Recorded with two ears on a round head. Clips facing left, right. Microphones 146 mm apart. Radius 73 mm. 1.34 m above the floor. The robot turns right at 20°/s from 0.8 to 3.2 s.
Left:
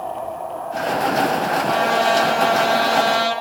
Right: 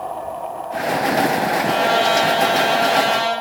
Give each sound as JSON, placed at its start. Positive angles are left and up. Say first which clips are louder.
{"t": 1.7, "sound": "a trumpet", "louder": "even", "azimuth_deg": -20, "distance_m": 9.5}